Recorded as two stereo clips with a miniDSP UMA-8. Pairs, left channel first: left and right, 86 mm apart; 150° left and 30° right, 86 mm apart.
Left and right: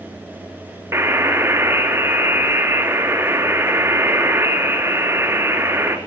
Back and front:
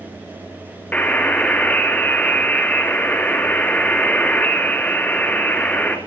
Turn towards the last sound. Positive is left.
turn(degrees=-140)